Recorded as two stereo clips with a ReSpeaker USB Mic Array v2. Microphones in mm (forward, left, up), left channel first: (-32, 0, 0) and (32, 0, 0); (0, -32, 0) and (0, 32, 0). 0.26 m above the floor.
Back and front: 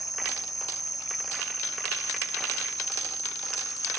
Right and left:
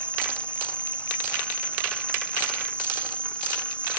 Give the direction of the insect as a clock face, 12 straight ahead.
5 o'clock.